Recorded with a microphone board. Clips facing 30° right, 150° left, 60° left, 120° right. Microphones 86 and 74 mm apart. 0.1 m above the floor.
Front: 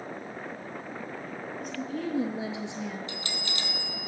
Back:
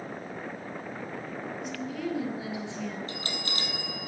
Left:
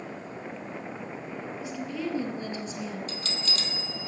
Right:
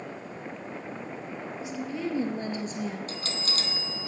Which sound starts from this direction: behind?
A bell, at 3.1 s.